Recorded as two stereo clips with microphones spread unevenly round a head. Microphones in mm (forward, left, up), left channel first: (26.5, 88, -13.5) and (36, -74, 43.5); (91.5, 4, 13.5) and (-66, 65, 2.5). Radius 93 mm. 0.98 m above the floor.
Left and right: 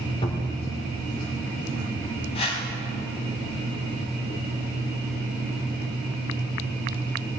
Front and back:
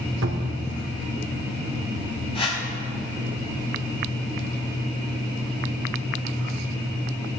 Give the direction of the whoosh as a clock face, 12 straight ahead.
11 o'clock.